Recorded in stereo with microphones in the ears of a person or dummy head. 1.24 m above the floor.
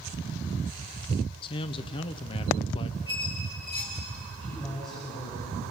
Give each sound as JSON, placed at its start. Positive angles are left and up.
{"t": 1.4, "sound": "a man speaking", "side_deg": 25, "distance_m": 0.7}
{"t": 3.1, "sound": "a squeak", "side_deg": 25, "distance_m": 3.0}
{"t": 4.4, "sound": "a man speaking", "side_deg": 5, "distance_m": 8.0}